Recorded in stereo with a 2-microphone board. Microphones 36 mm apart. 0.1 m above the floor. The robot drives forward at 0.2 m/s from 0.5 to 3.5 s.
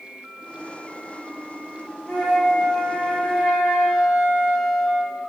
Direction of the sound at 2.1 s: 25° left (ahead or behind).